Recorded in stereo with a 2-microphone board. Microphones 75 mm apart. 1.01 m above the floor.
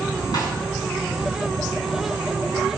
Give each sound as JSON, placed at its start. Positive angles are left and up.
{"t": 0.3, "sound": "a snare drum", "side_deg": 75, "distance_m": 7.5}